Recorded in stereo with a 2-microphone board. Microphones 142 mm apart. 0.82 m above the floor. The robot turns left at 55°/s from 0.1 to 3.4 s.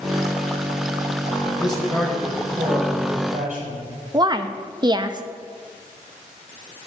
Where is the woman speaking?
30° right (ahead or behind), 0.6 m.